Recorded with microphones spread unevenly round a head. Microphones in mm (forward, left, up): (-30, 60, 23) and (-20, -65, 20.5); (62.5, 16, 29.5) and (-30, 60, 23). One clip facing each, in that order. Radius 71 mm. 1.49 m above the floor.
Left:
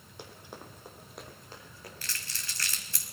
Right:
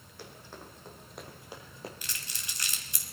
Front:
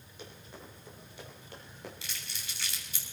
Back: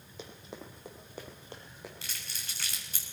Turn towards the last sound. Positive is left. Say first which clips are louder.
# left 1 dB, even
turn(degrees=-150)